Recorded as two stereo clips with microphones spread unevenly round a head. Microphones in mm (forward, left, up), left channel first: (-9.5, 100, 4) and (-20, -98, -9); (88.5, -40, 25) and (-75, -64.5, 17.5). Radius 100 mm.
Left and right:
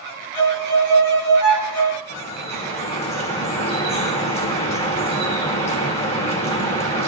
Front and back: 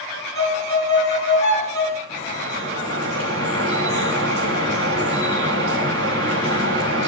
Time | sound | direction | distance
0.3 | a violin | 85° left | 7 m
2.1 | dripping | 150° left | 4.5 m